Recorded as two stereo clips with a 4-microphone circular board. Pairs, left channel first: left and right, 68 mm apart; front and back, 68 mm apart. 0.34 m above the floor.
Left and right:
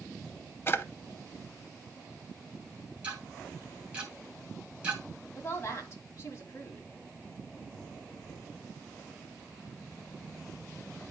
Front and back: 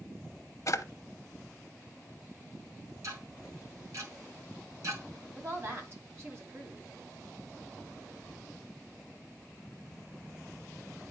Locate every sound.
0.7 s a drawer: 35° left, 0.6 m
3.0 s ticking: 160° right, 2.5 m
5.3 s a woman speaking: 135° left, 2 m